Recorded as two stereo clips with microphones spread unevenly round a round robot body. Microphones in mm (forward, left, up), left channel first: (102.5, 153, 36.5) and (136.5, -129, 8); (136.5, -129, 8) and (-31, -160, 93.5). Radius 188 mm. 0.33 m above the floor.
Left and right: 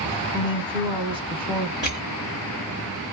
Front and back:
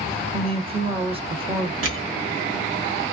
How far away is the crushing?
About 1.3 m.